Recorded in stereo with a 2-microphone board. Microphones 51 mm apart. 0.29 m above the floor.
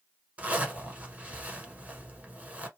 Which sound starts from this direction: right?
A zipper, at 0.4 s.